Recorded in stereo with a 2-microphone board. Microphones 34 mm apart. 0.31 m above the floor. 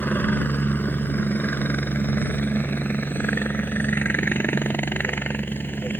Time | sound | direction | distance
0.0 | a helicopter | 70° left (ahead or behind) | ?